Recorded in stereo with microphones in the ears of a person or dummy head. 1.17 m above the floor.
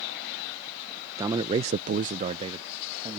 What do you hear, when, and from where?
1.2 s a man speaking: 20° right (ahead or behind); by 3.2 s 15° right (ahead or behind)